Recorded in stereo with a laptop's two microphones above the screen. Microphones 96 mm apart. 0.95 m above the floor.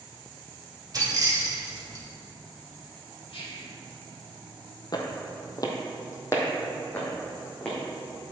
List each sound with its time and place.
0.9 s keys jangling: 40° right (ahead or behind), 3 m
3.3 s whispering: 80° left, 1.9 m
4.9 s footsteps: 45° left (ahead or behind), 1.3 m; by 7.8 s 10° left (ahead or behind), 2.5 m